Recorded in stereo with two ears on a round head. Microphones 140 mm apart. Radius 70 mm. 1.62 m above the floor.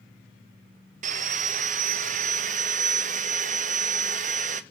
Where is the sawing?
50° right (ahead or behind), 0.9 m.